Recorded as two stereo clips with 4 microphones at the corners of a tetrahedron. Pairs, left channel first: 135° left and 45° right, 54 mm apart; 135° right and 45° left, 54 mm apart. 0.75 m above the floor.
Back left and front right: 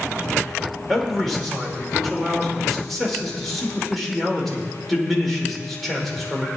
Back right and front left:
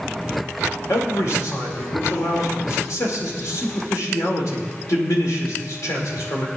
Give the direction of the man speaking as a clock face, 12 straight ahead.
4 o'clock.